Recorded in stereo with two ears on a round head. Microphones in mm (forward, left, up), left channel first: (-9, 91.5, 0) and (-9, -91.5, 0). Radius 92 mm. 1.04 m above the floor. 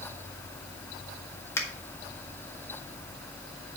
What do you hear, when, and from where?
1.6 s a finger snap: 15° left (ahead or behind), 1.7 m